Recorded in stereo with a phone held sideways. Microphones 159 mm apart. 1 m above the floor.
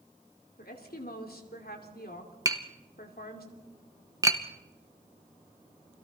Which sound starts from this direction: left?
A woman speaking, at 0.6 s.